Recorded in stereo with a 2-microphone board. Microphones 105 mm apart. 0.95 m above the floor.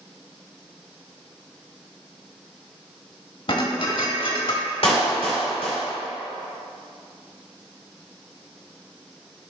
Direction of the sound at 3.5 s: 60° left (ahead or behind).